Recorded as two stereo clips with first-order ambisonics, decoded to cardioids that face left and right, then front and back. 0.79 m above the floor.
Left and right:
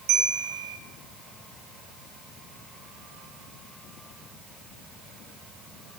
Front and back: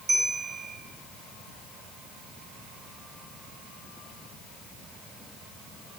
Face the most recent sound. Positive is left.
turn(degrees=-115)